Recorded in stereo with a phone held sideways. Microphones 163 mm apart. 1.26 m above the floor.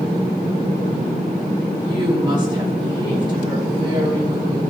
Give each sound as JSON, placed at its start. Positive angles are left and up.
{"t": 1.8, "sound": "a woman speaking", "side_deg": -30, "distance_m": 3.5}